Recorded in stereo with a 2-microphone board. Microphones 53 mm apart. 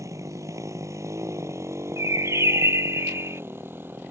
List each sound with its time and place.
0.0 s a motorcycle: 85° right; by 4.1 s 40° right (ahead or behind)
2.0 s a bird: 70° right (ahead or behind)